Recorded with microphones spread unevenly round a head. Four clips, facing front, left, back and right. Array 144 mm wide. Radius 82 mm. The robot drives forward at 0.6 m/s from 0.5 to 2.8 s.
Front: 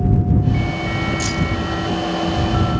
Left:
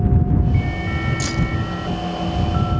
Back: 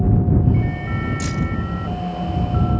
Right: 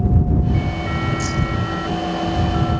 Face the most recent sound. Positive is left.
turn(degrees=155)